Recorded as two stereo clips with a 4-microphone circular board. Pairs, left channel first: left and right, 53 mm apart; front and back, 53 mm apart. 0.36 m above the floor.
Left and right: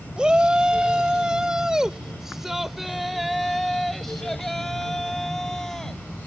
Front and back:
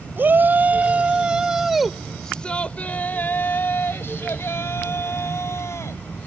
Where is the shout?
155° right; by 6.3 s 10° left.